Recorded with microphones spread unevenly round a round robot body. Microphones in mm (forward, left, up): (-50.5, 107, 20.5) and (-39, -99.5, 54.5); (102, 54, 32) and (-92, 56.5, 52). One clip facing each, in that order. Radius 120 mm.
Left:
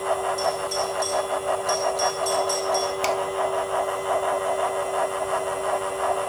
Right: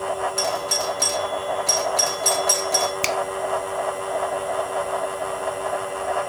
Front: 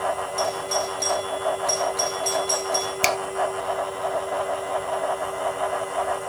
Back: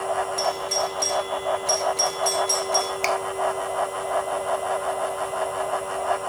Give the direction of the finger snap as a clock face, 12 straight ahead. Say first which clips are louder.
Left 1 dB, front 2 dB; 1 o'clock.